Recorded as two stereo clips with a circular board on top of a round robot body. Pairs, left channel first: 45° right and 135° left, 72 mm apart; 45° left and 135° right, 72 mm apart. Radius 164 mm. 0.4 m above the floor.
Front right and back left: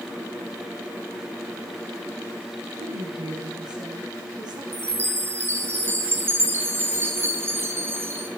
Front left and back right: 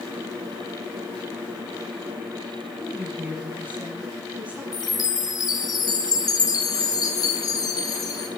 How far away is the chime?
About 4 m.